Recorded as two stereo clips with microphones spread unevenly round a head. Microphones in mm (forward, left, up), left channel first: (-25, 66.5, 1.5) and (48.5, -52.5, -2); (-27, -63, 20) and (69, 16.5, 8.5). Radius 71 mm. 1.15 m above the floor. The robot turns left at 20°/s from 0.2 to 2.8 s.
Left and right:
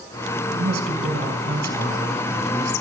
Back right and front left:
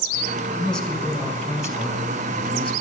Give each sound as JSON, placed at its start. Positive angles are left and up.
{"t": 0.5, "sound": "a woman speaking", "azimuth_deg": -50, "distance_m": 5.5}